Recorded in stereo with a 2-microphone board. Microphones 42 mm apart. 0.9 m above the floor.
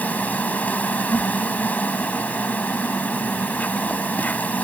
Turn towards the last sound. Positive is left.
turn(degrees=35)  # may be behind; listen again after turning